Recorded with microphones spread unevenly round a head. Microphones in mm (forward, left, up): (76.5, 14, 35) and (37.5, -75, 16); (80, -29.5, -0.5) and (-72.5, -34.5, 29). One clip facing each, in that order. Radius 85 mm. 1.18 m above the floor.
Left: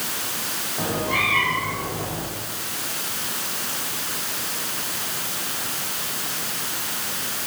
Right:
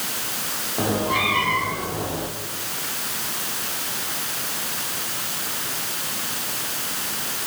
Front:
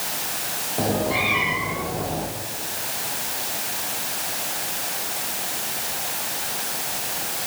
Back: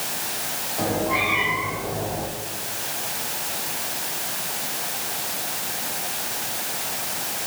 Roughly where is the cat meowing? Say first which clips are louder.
Right 3 dB, front 1 dB; ahead right.